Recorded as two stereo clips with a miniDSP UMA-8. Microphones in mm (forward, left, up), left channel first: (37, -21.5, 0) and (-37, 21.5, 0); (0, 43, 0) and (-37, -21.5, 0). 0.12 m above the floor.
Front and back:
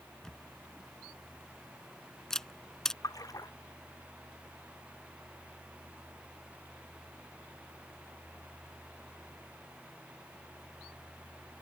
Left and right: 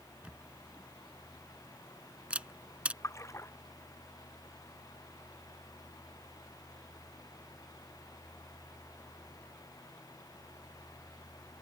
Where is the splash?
15° left.